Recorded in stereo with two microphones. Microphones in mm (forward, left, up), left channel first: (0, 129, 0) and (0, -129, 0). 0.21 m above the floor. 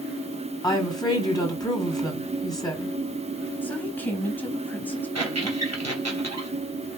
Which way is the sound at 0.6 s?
15° left (ahead or behind).